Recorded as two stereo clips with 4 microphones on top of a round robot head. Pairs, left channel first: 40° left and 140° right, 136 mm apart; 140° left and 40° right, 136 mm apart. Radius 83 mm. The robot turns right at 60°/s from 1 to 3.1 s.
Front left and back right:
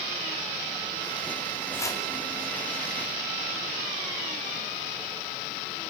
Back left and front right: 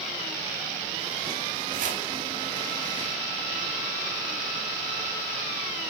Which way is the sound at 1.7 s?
35° right.